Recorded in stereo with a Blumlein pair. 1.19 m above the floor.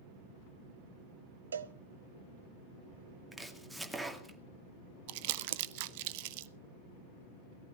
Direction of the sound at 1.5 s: 70° right.